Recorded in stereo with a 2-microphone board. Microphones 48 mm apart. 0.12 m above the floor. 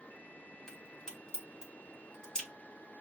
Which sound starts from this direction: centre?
A crack, at 0.7 s.